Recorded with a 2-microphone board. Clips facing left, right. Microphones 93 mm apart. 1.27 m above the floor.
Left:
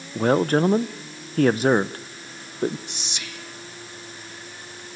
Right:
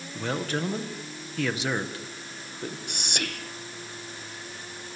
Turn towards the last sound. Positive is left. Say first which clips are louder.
# right 4 dB
turn(degrees=-55)  # may be behind; listen again after turning